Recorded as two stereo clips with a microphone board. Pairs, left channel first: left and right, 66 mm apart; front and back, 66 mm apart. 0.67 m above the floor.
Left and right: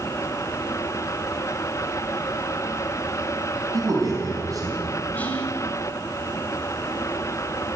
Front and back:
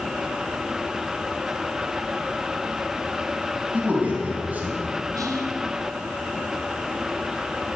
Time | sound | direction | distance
3.7 | a man speaking | 115° right | 5.5 m
5.2 | whispering | 155° left | 2.5 m